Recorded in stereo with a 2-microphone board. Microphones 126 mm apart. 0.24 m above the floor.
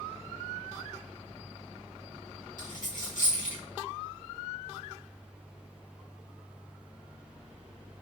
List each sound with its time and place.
2.6 s a dropped coin: 85° left, 5 m